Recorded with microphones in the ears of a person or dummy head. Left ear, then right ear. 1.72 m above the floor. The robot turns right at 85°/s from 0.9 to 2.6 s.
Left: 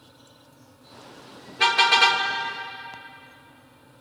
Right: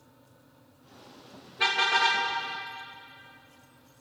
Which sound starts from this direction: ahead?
A car horn, at 1.6 s.